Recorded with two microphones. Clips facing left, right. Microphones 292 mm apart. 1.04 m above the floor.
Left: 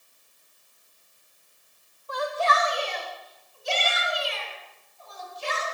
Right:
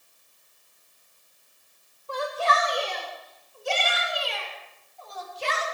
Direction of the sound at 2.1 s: 30° right (ahead or behind).